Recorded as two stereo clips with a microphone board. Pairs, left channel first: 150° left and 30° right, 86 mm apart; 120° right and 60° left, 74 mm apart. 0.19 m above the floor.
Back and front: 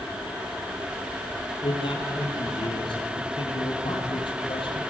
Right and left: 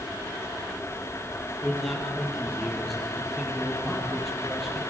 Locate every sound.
1.6 s a man speaking: 150° left, 7 m